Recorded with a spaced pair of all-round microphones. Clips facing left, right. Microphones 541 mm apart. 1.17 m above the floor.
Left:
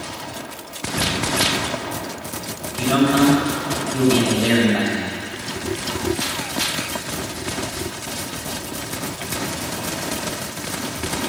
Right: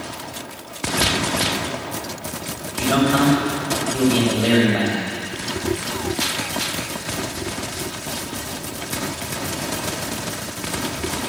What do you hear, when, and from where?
1.0 s a cupboard door: 85° left, 8 m
2.7 s a man speaking: 20° left (ahead or behind), 5.5 m